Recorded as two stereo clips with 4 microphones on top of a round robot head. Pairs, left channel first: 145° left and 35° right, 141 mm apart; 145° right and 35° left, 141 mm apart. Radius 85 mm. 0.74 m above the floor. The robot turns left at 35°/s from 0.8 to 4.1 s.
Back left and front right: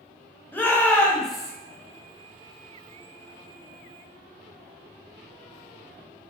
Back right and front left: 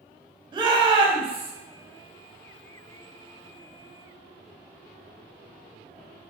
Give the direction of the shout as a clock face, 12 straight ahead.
10 o'clock.